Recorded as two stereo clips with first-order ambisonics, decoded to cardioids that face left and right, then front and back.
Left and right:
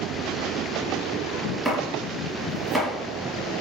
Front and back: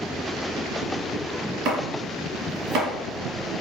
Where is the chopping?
Straight behind, 1.6 m.